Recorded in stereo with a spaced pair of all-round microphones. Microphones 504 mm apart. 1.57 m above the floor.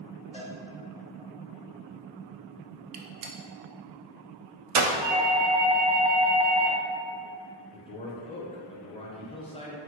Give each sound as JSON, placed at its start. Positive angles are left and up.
{"t": 0.3, "sound": "a cowbell", "side_deg": 15, "distance_m": 0.8}
{"t": 2.9, "sound": "a gunshot", "side_deg": -75, "distance_m": 0.5}
{"t": 5.0, "sound": "a doorbell", "side_deg": 0, "distance_m": 1.0}
{"t": 7.7, "sound": "a man speaking", "side_deg": 10, "distance_m": 0.7}